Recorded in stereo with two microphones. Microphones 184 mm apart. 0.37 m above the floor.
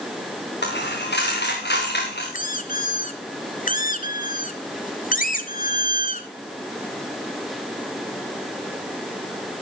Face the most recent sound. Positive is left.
turn(degrees=50)  # may be behind; listen again after turning